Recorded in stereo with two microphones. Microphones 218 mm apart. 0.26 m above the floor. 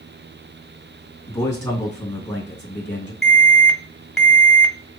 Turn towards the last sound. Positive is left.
turn(degrees=0)  # may be behind; listen again after turning